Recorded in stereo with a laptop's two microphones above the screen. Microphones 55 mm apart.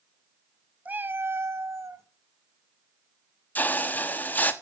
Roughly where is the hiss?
Left.